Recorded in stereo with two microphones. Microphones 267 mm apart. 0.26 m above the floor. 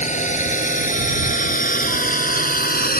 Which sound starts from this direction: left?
A drone, at 0.0 s.